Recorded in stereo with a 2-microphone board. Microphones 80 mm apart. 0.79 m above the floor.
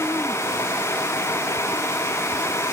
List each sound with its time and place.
Only background noise.